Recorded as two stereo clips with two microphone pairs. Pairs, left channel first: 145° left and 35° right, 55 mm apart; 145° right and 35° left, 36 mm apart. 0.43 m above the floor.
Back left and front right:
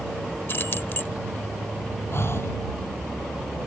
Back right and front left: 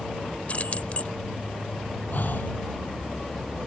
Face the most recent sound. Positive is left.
turn(degrees=-175)